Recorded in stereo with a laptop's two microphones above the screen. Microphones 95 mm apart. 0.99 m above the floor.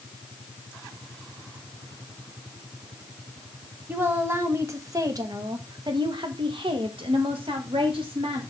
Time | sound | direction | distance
3.9 | a woman speaking | 20° right (ahead or behind) | 1.8 m